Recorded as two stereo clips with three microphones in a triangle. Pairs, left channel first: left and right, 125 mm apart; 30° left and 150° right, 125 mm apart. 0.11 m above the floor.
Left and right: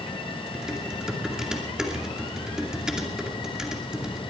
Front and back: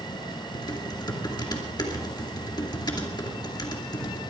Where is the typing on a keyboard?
10° right, 2.5 m.